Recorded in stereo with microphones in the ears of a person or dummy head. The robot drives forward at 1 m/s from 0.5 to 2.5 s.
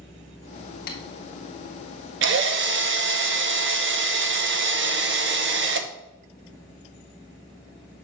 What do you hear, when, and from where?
0.9 s tapping: 50° left (ahead or behind), 1.5 m; by 1.0 s 45° left (ahead or behind), 1.5 m
2.2 s a drill: 60° right (ahead or behind), 0.9 m